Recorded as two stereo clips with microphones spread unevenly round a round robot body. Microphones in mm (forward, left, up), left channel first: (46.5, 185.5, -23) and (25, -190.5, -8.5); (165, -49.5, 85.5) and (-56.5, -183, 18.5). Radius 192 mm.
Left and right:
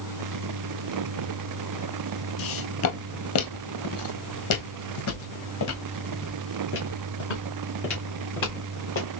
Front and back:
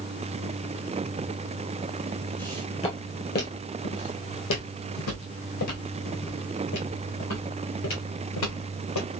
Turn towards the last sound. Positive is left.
turn(degrees=25)